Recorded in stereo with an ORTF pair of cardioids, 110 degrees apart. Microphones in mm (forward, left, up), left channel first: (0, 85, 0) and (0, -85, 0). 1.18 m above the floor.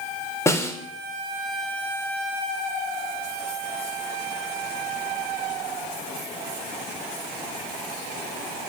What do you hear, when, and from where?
0.5 s a snare drum: 15° left, 3 m